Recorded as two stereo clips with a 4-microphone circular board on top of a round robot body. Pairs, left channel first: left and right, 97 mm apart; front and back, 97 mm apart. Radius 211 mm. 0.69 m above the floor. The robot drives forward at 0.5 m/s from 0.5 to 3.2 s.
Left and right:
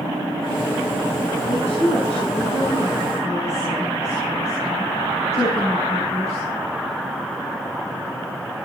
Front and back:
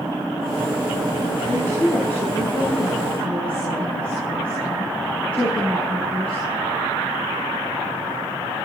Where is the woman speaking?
70° left, 7.5 m; by 6.4 s 80° left, 7.5 m.